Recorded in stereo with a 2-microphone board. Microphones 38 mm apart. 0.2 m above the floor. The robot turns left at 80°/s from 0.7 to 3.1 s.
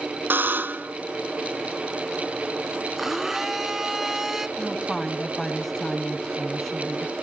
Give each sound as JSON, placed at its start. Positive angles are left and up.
{"t": 0.3, "sound": "a buzzer", "side_deg": -60, "distance_m": 0.5}
{"t": 3.0, "sound": "a blender", "side_deg": 0, "distance_m": 0.7}
{"t": 4.6, "sound": "a woman speaking", "side_deg": 5, "distance_m": 1.0}